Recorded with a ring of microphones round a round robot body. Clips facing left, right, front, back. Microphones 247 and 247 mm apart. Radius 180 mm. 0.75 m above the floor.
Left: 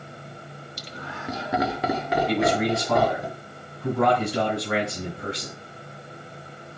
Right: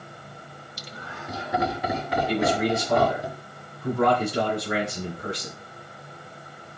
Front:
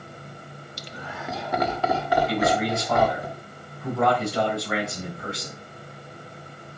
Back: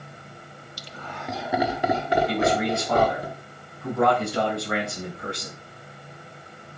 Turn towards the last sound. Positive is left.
turn(degrees=85)